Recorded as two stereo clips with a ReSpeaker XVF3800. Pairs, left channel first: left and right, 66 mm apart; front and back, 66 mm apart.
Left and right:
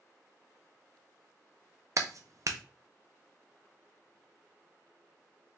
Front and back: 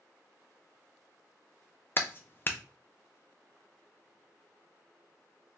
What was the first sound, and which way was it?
A clap, 55° right.